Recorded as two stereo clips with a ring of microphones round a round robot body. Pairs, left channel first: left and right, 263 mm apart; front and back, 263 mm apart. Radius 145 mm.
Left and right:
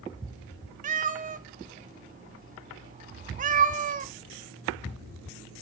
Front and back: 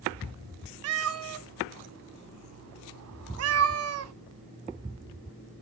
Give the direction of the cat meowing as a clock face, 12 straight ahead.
5 o'clock.